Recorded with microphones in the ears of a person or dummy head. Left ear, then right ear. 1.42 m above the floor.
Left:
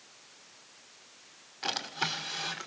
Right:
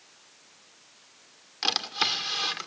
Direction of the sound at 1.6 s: 60° right (ahead or behind).